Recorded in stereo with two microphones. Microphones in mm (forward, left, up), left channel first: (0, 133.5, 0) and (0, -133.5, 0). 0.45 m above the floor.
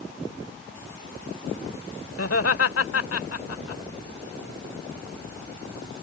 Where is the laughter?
60° left (ahead or behind).